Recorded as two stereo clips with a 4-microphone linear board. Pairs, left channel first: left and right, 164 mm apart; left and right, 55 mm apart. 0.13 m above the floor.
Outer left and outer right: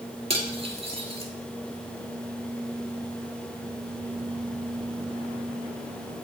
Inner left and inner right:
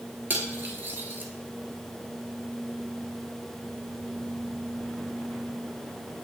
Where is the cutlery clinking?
40° right (ahead or behind), 1.3 m.